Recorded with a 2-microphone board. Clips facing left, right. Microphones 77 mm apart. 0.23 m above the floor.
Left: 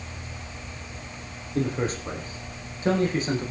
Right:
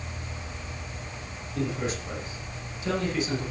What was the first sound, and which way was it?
A man speaking, 40° left (ahead or behind).